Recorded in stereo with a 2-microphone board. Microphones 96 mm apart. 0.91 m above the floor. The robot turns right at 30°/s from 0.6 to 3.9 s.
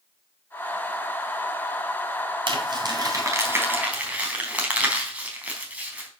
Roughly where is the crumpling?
Right.